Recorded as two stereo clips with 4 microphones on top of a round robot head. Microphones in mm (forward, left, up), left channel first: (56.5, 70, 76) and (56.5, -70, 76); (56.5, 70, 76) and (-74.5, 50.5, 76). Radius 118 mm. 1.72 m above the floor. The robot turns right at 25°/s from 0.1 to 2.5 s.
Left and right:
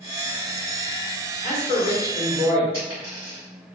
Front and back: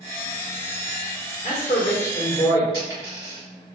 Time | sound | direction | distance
1.4 | a man speaking | 25° left | 1.9 m
2.7 | a dropped coin | 150° right | 1.3 m